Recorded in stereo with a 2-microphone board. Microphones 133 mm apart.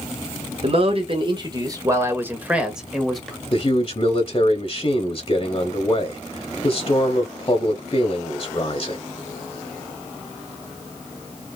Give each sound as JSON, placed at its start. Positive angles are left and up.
{"t": 0.6, "sound": "a man speaking", "side_deg": -50, "distance_m": 1.5}
{"t": 3.5, "sound": "a man speaking", "side_deg": 40, "distance_m": 1.0}